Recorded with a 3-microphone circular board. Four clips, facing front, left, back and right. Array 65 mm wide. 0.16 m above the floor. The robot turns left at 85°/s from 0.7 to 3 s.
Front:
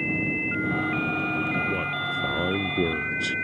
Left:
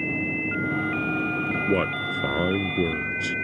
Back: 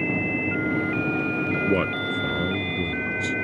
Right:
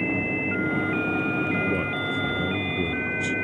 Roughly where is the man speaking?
Behind left.